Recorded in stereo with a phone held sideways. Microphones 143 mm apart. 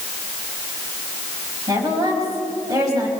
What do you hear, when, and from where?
1.7 s a woman speaking: 25° right (ahead or behind), 6.5 m